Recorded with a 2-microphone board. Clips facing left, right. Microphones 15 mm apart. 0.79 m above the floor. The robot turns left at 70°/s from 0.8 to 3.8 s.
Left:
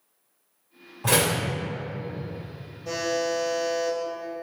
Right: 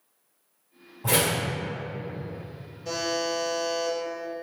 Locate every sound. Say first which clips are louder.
1.0 s a door slam: left 2 dB; 75° left (ahead or behind), 1.9 m; by 1.4 s 70° left (ahead or behind), 1.9 m
2.9 s a buzzer: left 2 dB; 30° right, 1.2 m; by 4.0 s 100° right, 1.2 m